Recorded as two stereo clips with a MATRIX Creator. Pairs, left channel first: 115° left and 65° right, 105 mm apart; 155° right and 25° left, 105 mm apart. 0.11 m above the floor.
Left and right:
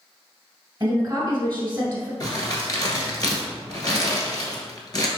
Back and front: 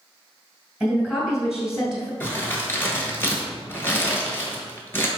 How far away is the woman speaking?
About 1.3 m.